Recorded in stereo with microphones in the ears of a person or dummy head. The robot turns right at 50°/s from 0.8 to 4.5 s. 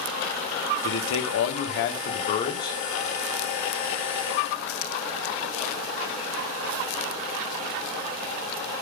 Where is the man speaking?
60° left, 1.5 m; by 2.8 s 160° left, 1.5 m.